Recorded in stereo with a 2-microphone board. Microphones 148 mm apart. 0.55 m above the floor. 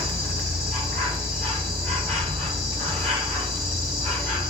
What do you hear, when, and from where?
0.0 s an insect: 15° left (ahead or behind), 6.5 m